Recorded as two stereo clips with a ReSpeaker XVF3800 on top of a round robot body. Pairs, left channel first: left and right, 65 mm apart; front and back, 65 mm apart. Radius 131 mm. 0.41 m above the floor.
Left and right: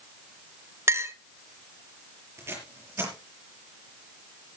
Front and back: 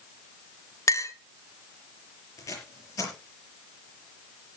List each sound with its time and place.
0.9 s a clink: 40° right, 1.3 m
2.4 s tape being pulled: 40° right, 6.5 m